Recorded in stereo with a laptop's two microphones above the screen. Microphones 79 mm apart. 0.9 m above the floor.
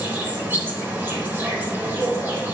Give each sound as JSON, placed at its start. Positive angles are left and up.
{"t": 0.0, "sound": "an insect", "side_deg": -25, "distance_m": 3.5}